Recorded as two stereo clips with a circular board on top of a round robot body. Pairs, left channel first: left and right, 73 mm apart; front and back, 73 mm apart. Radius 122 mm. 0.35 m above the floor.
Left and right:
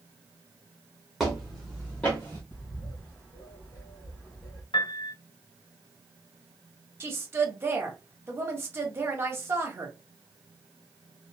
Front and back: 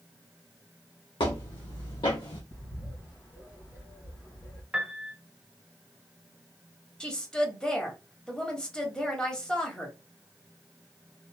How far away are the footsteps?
About 1.5 m.